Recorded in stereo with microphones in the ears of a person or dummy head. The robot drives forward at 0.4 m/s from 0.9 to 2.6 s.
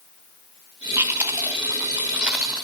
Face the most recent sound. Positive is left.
turn(degrees=-5)  # may be behind; listen again after turning